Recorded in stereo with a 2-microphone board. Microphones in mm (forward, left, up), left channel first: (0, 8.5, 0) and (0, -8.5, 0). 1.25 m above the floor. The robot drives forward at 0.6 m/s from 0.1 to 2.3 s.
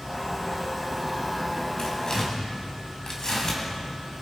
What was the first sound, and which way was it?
Tearing paper, 35° left (ahead or behind).